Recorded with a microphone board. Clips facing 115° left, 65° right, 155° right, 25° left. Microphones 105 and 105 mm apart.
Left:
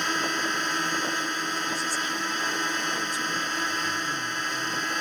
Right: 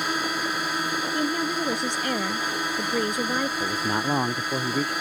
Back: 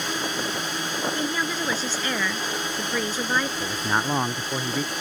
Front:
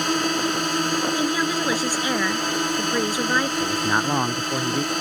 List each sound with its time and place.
0.0 s a drone: 15° left
1.1 s a woman speaking: 55° right
3.6 s a man speaking: 60° right